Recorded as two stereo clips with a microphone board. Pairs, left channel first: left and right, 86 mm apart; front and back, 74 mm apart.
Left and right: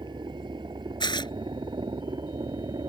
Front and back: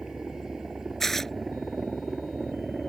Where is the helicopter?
100° right; by 2.9 s 90° right.